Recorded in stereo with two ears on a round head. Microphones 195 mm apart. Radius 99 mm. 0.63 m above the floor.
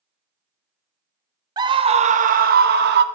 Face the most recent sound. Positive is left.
turn(degrees=-50)  # may be behind; listen again after turning